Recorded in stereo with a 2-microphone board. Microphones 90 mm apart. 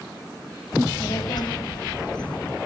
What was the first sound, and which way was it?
A child speaking, 55° left (ahead or behind).